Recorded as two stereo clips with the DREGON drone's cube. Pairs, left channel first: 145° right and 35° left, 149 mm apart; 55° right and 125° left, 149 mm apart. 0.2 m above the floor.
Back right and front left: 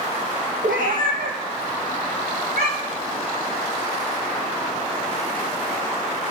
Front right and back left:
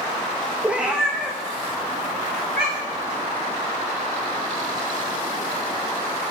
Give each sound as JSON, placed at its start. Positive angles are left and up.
{"t": 0.6, "sound": "a cat meowing", "azimuth_deg": 45, "distance_m": 0.9}